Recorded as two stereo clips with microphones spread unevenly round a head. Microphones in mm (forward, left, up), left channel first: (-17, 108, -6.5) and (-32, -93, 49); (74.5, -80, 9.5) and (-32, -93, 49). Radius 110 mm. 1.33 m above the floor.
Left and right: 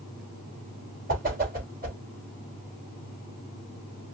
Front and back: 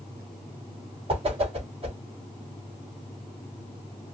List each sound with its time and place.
1.1 s a whoosh: 140° right, 2.5 m